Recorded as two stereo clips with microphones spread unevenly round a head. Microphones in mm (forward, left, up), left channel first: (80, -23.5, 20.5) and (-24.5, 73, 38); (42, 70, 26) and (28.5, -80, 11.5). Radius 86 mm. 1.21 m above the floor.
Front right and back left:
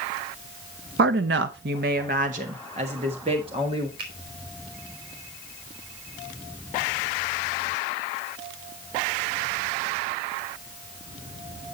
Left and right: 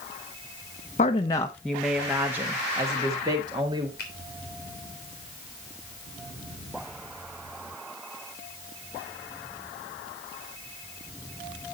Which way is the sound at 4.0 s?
125° left.